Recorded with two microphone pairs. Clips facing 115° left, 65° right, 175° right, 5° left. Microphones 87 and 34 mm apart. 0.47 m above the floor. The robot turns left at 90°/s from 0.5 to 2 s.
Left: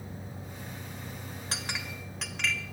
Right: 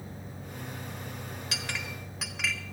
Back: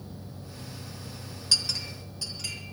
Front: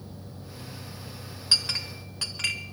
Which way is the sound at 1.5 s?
70° left.